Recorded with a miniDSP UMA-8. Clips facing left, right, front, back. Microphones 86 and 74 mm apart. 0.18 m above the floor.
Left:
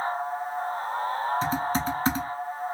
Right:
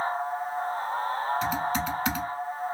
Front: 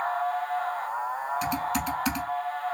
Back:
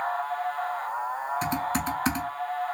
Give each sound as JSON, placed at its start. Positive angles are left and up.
{"t": 1.4, "sound": "typing on a keyboard", "azimuth_deg": 135, "distance_m": 0.6}